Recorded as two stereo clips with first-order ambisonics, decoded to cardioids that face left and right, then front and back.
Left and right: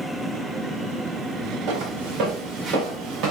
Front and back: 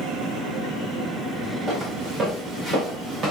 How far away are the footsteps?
About 7 m.